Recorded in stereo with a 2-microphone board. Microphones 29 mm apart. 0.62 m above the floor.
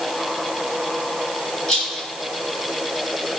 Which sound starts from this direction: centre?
A rattle, at 1.7 s.